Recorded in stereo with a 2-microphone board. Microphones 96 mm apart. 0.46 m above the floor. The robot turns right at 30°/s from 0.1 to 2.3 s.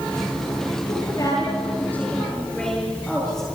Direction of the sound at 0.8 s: 130° left.